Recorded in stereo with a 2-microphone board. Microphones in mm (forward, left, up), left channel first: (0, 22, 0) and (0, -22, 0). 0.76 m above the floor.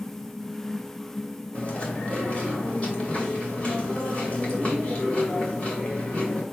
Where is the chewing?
30° left (ahead or behind), 2.5 m.